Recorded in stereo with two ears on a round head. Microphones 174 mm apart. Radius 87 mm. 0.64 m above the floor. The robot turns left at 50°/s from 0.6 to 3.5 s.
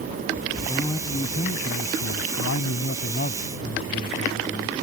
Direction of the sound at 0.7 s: 175° left.